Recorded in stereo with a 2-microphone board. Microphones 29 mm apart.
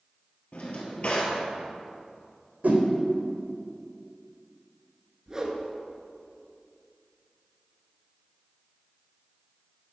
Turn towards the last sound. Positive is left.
turn(degrees=-25)  # may be behind; listen again after turning